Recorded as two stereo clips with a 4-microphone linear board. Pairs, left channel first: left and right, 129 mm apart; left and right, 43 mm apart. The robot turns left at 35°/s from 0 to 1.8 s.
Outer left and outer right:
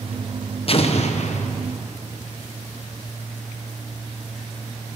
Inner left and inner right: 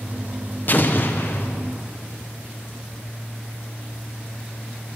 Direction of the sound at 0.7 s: 45° left (ahead or behind).